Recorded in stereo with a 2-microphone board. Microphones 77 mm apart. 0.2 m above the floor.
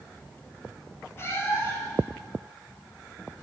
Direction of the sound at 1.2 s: 35° left (ahead or behind).